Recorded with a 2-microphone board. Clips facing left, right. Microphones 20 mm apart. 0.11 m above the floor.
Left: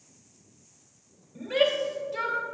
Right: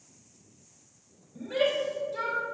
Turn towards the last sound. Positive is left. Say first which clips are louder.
# left 3 dB
turn(degrees=40)  # may be behind; listen again after turning